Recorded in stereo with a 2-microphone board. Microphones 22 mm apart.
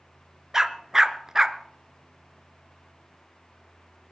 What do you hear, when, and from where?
0.5 s a dog barking: 20° right (ahead or behind), 0.6 m